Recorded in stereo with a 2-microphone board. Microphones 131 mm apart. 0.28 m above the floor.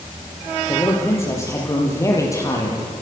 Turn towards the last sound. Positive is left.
turn(degrees=25)  # may be behind; listen again after turning